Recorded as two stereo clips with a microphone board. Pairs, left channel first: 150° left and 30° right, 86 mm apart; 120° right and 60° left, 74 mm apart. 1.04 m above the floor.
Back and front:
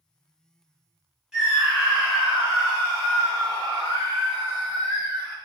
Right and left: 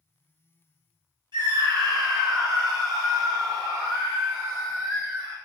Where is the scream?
55° left, 1.6 m; by 5.3 s 15° left, 4 m.